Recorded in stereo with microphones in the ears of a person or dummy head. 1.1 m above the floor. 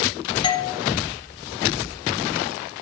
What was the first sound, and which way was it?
A doorbell, 30° left (ahead or behind).